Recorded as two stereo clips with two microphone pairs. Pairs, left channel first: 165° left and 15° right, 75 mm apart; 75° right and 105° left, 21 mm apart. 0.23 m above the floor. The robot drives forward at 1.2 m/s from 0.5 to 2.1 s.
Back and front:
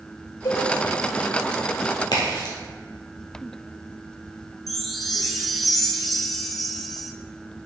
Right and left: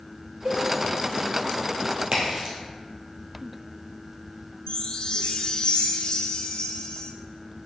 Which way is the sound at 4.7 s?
110° right.